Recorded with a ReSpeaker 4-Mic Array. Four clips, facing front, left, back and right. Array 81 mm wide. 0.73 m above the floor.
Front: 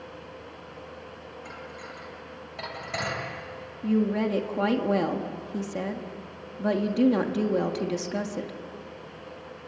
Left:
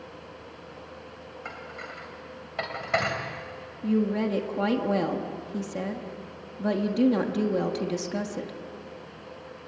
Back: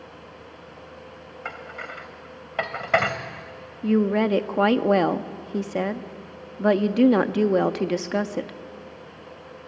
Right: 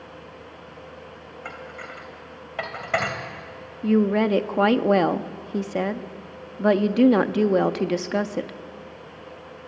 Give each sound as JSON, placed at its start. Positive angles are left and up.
{"t": 1.4, "sound": "dishes clattering", "azimuth_deg": -175, "distance_m": 2.5}
{"t": 3.8, "sound": "a woman speaking", "azimuth_deg": -135, "distance_m": 1.1}